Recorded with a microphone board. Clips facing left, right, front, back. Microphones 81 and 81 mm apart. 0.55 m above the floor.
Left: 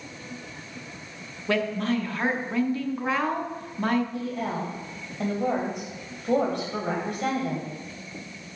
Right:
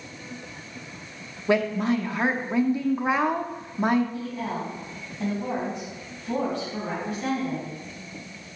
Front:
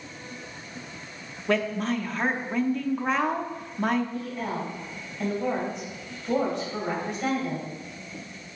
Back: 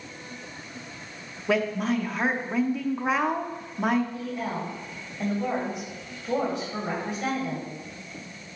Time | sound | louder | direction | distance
1.5 | a woman speaking | right 3 dB, back 1 dB | 105° right | 0.6 m
4.1 | a woman speaking | left 1 dB, even | 95° left | 2.5 m